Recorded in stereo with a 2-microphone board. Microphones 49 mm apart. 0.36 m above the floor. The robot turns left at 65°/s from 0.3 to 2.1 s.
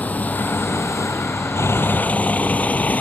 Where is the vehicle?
35° left (ahead or behind).